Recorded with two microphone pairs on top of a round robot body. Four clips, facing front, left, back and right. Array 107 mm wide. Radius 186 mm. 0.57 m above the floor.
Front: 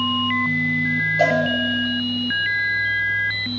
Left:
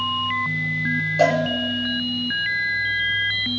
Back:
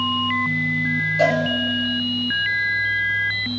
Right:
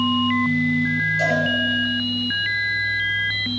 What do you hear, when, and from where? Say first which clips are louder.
1.2 s a cowbell: left 5 dB, even; 80° left, 6 m